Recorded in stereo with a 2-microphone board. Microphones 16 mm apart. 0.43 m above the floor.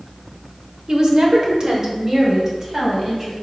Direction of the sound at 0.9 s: 45° right (ahead or behind).